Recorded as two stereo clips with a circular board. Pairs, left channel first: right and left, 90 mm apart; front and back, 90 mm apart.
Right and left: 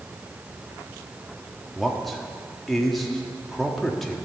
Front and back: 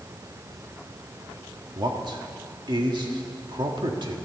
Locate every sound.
1.8 s a man speaking: straight behind, 1.6 m